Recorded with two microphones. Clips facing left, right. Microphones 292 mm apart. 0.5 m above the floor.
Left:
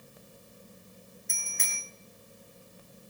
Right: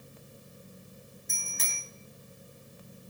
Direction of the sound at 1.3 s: 45° right (ahead or behind).